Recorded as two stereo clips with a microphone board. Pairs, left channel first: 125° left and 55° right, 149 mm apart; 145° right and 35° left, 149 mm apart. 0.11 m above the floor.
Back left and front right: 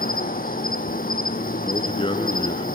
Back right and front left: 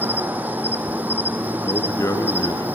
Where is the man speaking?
155° left, 1.7 m.